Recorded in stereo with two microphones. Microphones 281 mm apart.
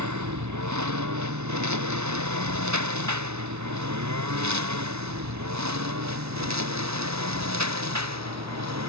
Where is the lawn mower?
85° right; by 8.9 s 70° right (ahead or behind).